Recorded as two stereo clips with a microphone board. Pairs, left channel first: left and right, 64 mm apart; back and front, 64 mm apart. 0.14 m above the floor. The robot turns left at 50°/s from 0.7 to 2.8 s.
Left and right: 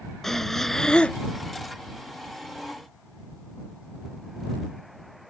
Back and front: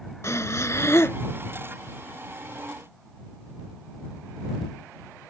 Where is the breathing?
170° left; by 1.2 s 150° left.